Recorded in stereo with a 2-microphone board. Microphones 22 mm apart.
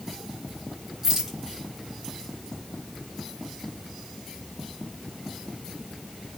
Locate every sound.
1.0 s a rattle: 10° right (ahead or behind), 3.5 m